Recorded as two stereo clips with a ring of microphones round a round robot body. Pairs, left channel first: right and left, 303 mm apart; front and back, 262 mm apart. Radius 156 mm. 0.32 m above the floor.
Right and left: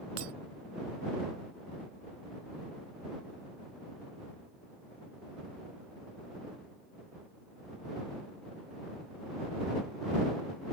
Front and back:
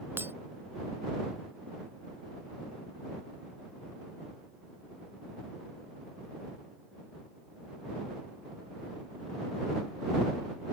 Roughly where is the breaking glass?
Left.